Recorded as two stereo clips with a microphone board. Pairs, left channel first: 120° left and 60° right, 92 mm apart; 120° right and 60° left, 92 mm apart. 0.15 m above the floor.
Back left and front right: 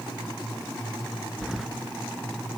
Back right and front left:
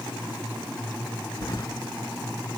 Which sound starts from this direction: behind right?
Keys jangling, at 1.4 s.